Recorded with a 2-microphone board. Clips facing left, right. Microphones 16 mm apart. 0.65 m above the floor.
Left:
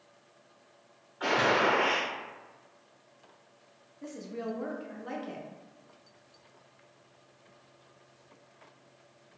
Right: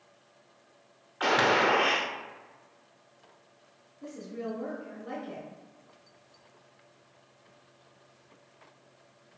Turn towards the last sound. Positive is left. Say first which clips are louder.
# even
turn(degrees=45)  # may be behind; listen again after turning